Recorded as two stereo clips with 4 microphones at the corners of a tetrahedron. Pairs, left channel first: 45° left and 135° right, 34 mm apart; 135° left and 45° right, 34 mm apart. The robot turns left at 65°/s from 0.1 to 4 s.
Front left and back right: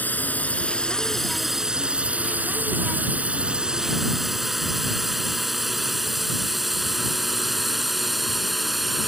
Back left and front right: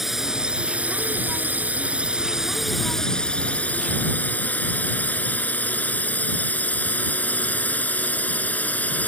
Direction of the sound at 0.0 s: 35° left.